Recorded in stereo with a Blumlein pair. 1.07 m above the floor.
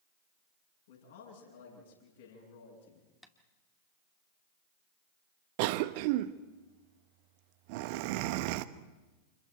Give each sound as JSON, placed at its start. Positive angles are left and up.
{"t": 0.9, "sound": "a man speaking", "azimuth_deg": 60, "distance_m": 8.5}
{"t": 3.2, "sound": "tapping", "azimuth_deg": 5, "distance_m": 2.0}
{"t": 5.6, "sound": "a cough", "azimuth_deg": -45, "distance_m": 1.1}